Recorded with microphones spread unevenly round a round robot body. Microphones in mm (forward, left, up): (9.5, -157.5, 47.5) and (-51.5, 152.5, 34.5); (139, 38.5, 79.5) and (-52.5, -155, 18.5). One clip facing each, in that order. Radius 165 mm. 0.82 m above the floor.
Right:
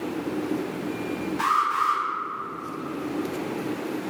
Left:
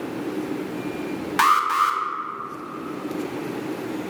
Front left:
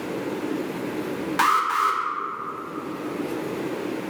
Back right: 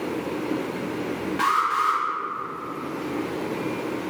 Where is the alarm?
90° left, 0.9 m.